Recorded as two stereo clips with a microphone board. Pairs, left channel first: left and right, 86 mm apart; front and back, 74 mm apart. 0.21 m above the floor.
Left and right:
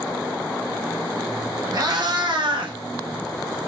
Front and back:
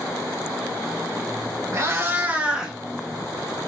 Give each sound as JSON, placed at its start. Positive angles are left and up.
{"t": 1.7, "sound": "a cat meowing", "azimuth_deg": -130, "distance_m": 0.9}